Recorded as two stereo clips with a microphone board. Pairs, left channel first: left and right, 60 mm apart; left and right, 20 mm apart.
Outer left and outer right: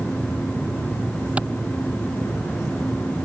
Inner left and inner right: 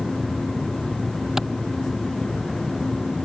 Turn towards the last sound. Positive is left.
turn(degrees=-20)  # may be behind; listen again after turning